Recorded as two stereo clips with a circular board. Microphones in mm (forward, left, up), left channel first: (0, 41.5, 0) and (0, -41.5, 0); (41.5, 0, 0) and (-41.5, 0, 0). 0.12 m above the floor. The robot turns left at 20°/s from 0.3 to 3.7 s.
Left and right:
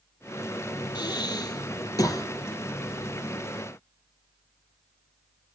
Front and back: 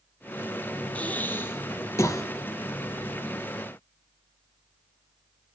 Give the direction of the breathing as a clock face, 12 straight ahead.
10 o'clock.